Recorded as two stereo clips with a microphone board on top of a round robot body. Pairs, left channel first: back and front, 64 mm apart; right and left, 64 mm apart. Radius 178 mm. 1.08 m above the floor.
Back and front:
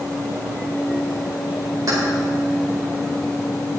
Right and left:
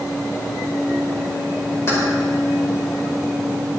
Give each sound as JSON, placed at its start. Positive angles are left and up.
{"t": 1.9, "sound": "keys jangling", "azimuth_deg": -40, "distance_m": 4.5}